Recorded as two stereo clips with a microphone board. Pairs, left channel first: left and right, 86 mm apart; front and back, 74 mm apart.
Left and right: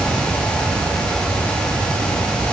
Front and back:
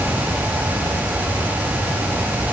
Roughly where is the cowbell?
I don't hear a cowbell.